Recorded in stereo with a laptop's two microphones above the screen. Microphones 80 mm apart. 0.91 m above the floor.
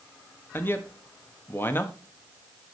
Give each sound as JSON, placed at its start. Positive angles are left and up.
{"t": 0.5, "sound": "a man speaking", "side_deg": 30, "distance_m": 1.3}